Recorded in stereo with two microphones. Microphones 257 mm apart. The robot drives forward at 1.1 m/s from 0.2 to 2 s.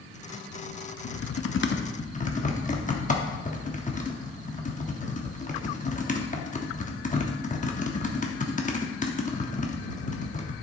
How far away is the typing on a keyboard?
About 0.6 m.